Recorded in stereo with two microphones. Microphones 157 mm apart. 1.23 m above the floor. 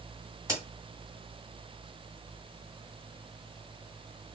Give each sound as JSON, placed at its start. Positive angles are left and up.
{"t": 0.5, "sound": "a crack", "side_deg": -20, "distance_m": 1.5}